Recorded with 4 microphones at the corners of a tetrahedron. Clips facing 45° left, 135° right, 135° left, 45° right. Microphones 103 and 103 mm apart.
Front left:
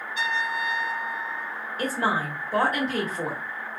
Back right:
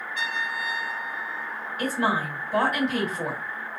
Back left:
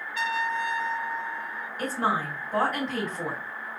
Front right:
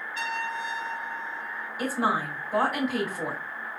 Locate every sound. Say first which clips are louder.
0.1 s a trumpet: front left 4 dB, back left 4 dB; 20° right, 2.0 m
1.8 s a woman speaking: back right 1 dB, front right 1 dB; 30° left, 1.6 m